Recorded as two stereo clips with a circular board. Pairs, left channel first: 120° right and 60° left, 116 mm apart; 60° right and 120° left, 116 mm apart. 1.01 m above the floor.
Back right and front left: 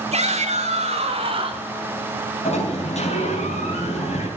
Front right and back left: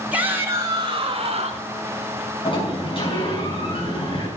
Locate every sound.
0.1 s a shout: 45° left, 1.9 m; by 1.7 s 100° left, 1.7 m
2.5 s a sliding door: 100° right, 6 m